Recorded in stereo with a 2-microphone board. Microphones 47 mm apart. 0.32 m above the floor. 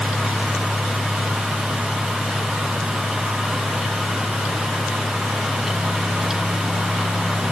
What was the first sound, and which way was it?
Only background noise.